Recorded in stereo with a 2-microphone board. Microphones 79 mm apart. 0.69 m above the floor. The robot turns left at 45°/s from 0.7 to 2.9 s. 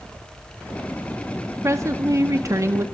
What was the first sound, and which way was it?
A woman speaking, 65° right.